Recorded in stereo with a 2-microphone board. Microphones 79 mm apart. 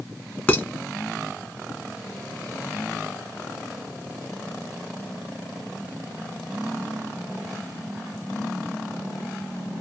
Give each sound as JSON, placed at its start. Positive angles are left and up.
{"t": 0.5, "sound": "dishes clattering", "side_deg": 20, "distance_m": 1.1}